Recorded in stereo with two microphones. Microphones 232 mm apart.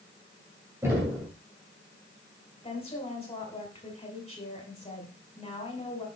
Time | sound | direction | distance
0.8 | knocking | 10° right (ahead or behind) | 2.5 m
2.6 | a woman speaking | 25° left (ahead or behind) | 2.5 m